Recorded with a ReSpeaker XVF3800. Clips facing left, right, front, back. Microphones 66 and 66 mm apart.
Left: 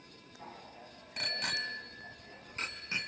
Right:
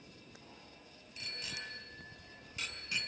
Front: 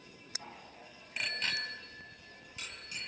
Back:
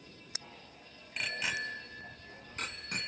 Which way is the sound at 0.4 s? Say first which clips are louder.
Left 7 dB, front 3 dB; 60° left.